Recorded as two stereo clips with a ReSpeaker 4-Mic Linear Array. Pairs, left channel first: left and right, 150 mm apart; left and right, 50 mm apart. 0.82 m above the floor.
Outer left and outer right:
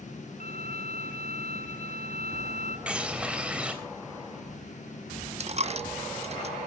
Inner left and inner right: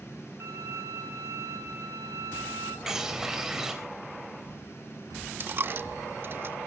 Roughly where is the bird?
Centre.